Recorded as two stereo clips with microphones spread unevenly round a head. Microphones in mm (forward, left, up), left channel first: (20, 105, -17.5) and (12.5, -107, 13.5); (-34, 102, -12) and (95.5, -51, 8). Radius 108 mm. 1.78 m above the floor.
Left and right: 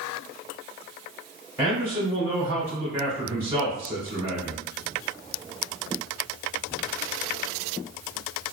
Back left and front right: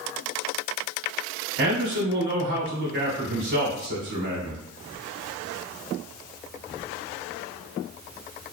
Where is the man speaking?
10° right, 1.2 m.